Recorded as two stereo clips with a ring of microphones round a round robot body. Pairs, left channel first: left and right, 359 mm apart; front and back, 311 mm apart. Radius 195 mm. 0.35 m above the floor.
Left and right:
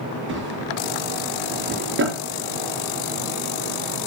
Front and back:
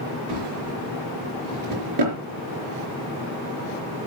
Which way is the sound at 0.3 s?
150° right.